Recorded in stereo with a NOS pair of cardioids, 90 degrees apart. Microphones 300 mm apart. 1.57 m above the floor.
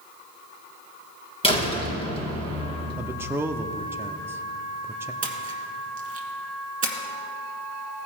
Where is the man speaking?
10° right, 0.5 m.